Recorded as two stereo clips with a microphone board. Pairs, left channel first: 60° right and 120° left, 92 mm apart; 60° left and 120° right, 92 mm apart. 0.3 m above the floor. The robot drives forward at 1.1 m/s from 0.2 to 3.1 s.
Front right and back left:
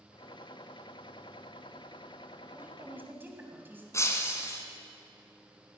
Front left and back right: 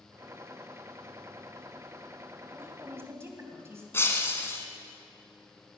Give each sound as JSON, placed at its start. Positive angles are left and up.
{"t": 2.5, "sound": "a woman speaking", "azimuth_deg": -175, "distance_m": 1.7}
{"t": 3.9, "sound": "breaking glass", "azimuth_deg": -5, "distance_m": 1.4}